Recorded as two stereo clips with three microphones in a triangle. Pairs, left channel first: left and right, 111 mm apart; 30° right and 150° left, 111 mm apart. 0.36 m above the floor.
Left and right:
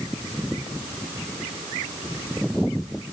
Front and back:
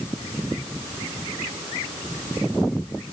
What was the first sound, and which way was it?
Only background noise.